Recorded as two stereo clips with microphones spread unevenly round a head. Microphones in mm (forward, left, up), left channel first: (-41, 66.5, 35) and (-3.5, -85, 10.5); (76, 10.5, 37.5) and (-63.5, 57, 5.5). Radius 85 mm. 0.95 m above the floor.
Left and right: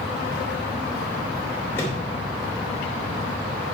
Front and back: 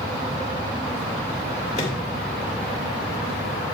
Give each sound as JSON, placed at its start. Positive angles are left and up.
{"t": 1.8, "sound": "a microwave", "azimuth_deg": 25, "distance_m": 2.5}